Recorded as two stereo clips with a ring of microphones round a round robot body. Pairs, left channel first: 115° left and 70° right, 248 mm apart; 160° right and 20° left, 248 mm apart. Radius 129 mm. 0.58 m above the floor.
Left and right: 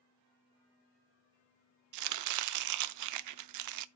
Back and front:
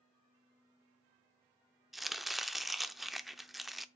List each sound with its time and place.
1.9 s chopping: 65° right, 0.6 m